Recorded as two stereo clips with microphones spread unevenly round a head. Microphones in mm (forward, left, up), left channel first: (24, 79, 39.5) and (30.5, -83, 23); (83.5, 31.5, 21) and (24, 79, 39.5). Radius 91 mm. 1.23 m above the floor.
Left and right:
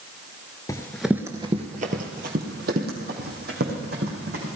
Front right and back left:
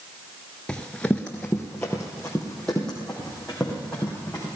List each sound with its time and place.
0.7 s running footsteps: 65° left, 1.3 m; by 4.5 s 130° right, 5.5 m